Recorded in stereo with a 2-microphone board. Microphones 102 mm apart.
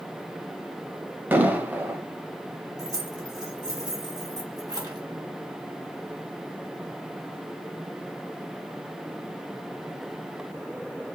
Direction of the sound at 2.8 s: 40° right (ahead or behind).